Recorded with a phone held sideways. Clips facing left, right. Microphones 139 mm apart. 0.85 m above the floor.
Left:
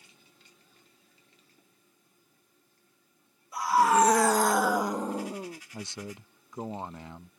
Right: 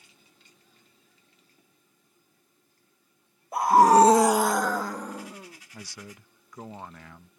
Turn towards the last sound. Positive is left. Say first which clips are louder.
# left 5 dB
turn(degrees=20)  # may be behind; listen again after turning